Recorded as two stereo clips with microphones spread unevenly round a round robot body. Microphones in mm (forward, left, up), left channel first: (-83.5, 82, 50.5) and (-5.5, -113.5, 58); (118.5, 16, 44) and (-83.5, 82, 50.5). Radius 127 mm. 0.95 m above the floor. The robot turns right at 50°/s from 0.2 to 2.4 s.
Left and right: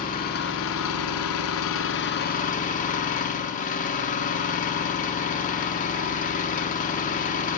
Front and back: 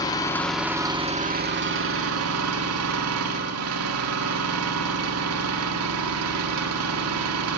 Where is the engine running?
55° left, 1.5 m; by 7.6 s 165° left, 1.5 m.